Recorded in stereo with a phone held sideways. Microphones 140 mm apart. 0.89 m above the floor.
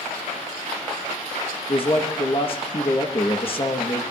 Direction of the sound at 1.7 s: 40° left (ahead or behind).